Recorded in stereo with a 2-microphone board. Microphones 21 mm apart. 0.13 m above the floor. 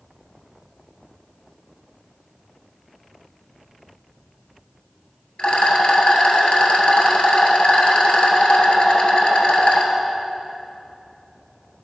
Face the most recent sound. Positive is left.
turn(degrees=55)  # may be behind; listen again after turning